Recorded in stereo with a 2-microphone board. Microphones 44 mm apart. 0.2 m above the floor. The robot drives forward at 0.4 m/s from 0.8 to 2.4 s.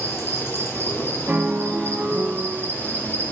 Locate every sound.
0.0 s an insect: 80° left, 1.9 m; by 3.3 s 60° left (ahead or behind), 2 m
1.3 s a piano: 40° right (ahead or behind), 0.7 m; by 2.7 s 35° right (ahead or behind), 0.8 m